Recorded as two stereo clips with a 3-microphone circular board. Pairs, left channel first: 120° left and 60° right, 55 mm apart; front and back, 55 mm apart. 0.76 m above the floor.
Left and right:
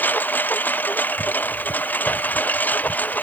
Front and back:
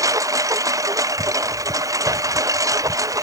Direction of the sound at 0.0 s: 175° left.